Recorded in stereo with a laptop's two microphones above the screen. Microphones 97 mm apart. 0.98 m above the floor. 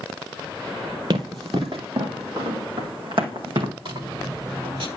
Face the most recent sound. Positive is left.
turn(degrees=-75)  # may be behind; listen again after turning